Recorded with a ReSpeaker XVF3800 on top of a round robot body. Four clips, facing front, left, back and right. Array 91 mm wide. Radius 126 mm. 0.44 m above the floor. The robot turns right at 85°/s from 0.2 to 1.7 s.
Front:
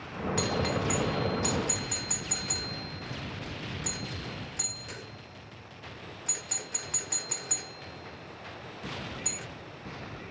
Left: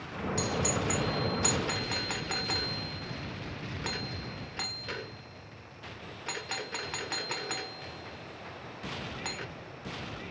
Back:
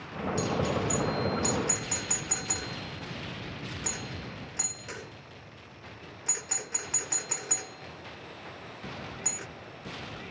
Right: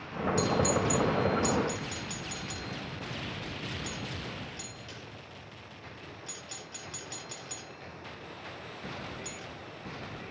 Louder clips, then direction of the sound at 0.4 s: Right 4 dB, back 1 dB; straight ahead.